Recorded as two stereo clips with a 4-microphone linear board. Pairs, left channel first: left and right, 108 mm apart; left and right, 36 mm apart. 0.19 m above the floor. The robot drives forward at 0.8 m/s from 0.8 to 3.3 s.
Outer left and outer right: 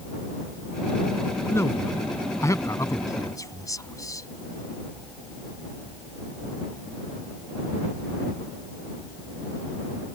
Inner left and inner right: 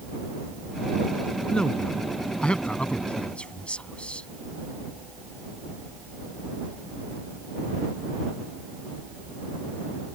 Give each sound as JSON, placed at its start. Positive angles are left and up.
{"t": 1.5, "sound": "a man speaking", "side_deg": 25}